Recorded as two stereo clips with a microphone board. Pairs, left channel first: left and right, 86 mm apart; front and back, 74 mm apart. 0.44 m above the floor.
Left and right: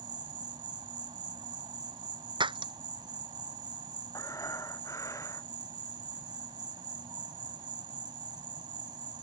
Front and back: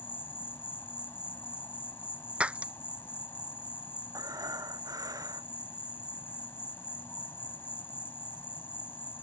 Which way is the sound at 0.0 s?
60° right.